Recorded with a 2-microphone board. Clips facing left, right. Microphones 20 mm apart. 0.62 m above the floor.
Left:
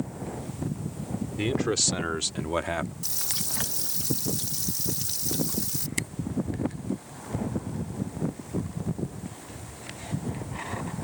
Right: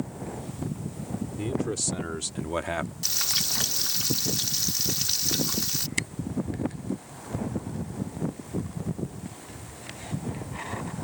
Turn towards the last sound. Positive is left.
turn(degrees=-10)  # may be behind; listen again after turning